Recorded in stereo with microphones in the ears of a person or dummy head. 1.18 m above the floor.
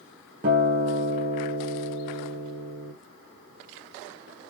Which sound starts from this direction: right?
A guitar, at 0.4 s.